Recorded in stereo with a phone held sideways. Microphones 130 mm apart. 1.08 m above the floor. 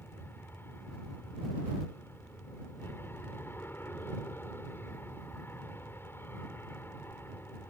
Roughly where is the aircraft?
Centre.